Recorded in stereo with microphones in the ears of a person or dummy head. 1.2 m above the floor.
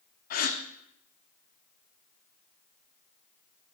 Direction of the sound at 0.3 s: 50° left (ahead or behind).